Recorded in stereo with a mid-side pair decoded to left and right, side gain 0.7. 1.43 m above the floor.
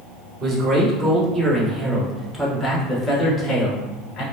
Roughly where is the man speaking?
Ahead right.